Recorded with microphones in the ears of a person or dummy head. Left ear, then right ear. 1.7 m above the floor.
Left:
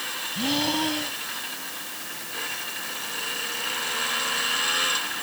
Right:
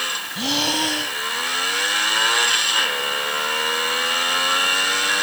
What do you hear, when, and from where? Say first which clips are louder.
0.3 s breathing: right 4 dB; 20° right (ahead or behind)